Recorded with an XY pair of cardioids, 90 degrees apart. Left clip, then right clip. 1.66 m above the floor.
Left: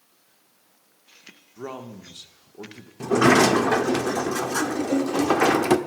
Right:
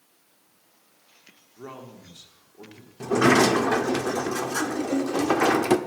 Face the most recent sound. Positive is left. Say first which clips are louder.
# left 2 dB
turn(degrees=15)